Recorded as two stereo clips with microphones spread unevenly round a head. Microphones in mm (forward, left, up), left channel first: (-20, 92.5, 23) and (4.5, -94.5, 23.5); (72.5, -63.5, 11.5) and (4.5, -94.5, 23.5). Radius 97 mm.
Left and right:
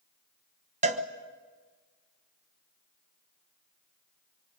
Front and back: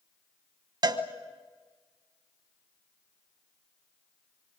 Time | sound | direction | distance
0.8 | a cowbell | 135° right | 1.5 m